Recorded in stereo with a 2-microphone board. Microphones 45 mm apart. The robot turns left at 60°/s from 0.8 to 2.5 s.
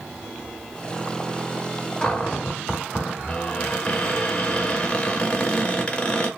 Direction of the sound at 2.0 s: 15° left (ahead or behind).